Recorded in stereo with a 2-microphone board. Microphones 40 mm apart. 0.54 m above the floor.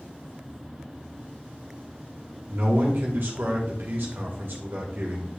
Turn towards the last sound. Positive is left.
turn(degrees=-60)  # may be behind; listen again after turning